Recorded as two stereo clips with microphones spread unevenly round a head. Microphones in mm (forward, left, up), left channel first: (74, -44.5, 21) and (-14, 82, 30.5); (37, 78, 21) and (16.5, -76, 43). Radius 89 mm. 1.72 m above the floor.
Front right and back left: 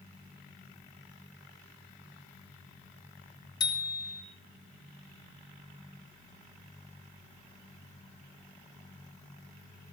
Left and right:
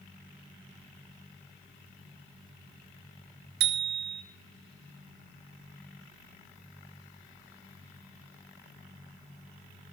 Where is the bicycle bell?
125° right, 2.5 m.